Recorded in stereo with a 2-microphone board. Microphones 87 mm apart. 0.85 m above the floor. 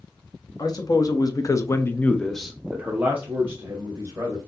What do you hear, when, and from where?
0.6 s a man speaking: 45° left (ahead or behind), 1.1 m; by 4.4 s 30° right (ahead or behind), 1.7 m